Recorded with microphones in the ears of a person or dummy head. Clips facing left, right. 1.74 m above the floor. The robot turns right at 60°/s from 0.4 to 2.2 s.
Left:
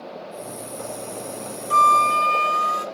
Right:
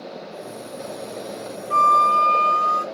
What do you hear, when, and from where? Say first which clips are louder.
1.7 s a flute: even; 125° left, 0.7 m; by 2.9 s 155° left, 0.7 m